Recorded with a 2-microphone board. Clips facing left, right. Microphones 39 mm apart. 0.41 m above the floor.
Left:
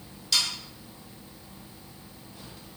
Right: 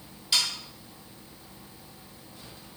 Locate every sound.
0.3 s sawing: 15° right (ahead or behind), 0.9 m